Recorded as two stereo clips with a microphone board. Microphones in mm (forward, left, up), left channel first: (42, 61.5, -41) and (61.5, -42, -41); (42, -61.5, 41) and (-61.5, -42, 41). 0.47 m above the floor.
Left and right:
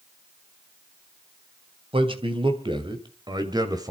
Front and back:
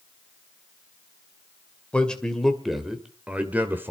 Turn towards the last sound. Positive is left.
turn(degrees=-125)